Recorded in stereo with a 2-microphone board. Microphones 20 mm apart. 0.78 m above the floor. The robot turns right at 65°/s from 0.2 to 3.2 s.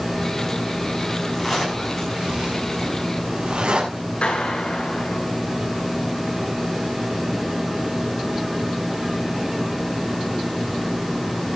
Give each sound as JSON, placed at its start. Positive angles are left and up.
{"t": 1.4, "sound": "a zipper", "side_deg": 5, "distance_m": 6.0}
{"t": 4.2, "sound": "a clap", "side_deg": 70, "distance_m": 8.5}